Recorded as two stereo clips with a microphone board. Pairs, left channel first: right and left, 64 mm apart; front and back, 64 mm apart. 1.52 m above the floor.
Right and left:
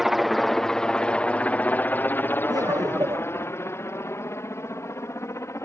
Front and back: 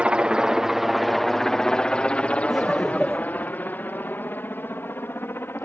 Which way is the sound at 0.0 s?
170° left.